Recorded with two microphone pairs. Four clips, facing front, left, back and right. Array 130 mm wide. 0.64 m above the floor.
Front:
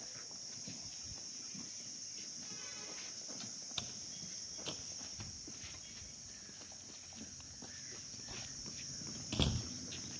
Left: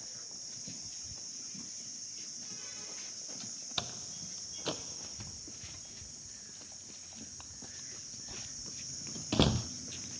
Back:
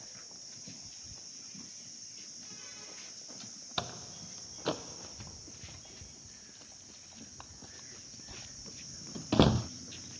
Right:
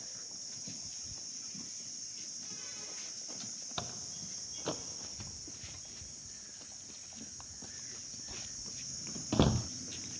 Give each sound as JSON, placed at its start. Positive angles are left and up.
{"t": 3.8, "sound": "a door slam", "azimuth_deg": 180}